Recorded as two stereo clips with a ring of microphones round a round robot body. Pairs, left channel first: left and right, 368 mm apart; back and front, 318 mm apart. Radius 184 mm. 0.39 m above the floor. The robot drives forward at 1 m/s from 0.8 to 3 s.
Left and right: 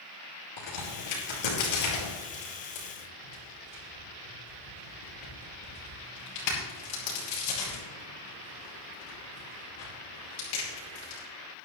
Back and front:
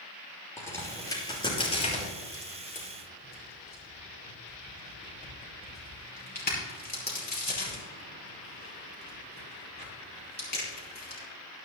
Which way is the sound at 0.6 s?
100° left.